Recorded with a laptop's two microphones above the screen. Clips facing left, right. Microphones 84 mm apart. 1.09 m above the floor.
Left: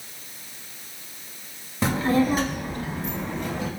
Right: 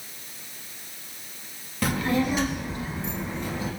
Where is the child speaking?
25° left (ahead or behind), 0.6 m; by 3.7 s 70° left (ahead or behind), 1.4 m.